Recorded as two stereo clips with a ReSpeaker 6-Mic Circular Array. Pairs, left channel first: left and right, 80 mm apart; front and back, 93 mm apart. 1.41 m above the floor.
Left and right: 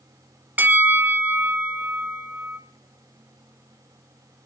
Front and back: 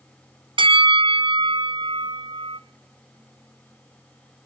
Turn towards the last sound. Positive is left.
turn(degrees=-160)